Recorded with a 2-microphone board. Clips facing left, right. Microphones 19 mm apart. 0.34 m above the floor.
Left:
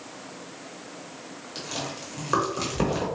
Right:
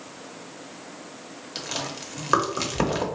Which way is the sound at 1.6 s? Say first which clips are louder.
Right 2 dB; 30° right (ahead or behind).